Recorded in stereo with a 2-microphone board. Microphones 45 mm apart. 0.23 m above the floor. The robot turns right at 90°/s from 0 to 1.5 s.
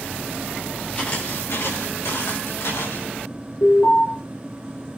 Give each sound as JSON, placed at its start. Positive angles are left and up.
{"t": 0.9, "sound": "footsteps", "side_deg": 30, "distance_m": 8.5}
{"t": 3.6, "sound": "an alarm", "side_deg": 70, "distance_m": 5.5}